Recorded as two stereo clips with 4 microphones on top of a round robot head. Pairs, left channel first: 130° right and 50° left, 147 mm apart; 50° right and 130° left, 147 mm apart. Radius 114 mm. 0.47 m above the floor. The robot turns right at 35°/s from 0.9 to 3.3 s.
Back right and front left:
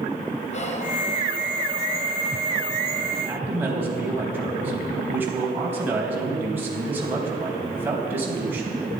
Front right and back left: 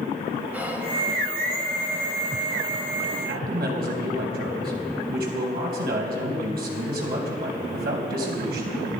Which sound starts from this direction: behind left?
A man speaking, at 3.1 s.